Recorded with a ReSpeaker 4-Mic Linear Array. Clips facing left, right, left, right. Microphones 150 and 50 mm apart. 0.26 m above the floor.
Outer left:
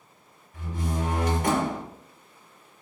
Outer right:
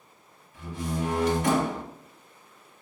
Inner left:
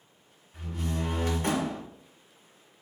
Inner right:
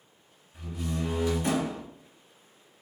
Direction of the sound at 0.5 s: 55° left (ahead or behind).